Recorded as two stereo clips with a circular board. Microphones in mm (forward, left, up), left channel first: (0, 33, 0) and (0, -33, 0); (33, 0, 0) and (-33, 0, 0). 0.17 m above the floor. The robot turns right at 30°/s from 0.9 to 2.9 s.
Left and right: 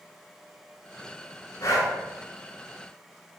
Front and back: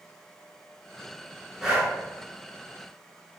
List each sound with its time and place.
1.6 s breathing: 100° left, 0.8 m; by 1.9 s 110° left, 0.8 m